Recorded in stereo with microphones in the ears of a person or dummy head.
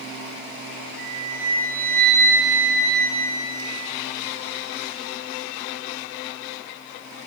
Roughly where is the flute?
Right.